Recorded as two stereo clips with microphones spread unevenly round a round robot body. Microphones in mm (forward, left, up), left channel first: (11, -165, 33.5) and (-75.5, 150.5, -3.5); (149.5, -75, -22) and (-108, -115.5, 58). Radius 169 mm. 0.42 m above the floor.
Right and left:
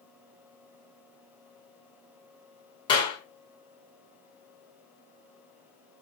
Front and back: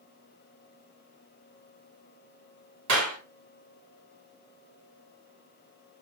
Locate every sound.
2.9 s a clap: 150° right, 4 m